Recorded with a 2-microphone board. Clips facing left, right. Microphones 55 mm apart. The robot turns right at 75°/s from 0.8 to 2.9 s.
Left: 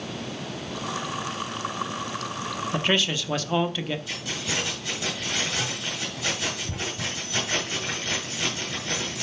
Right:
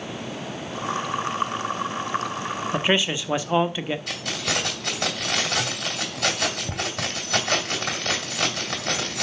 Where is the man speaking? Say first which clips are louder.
Right 2 dB; 15° right (ahead or behind), 0.8 m; by 4.0 s 20° right (ahead or behind), 0.8 m.